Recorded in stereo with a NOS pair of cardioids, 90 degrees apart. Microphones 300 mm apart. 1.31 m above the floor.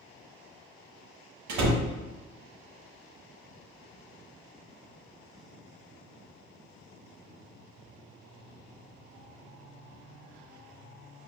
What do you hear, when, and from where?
1.5 s a door slam: 70° right, 0.9 m